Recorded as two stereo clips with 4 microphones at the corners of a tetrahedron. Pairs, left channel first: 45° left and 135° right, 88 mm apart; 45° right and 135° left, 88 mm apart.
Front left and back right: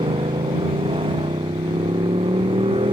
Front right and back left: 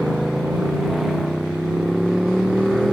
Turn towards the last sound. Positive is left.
turn(degrees=-135)